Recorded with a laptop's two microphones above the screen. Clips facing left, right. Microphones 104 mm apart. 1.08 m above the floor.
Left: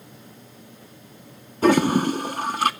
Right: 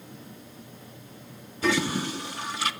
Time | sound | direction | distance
1.6 | a toilet flushing | 50° left (ahead or behind) | 0.5 m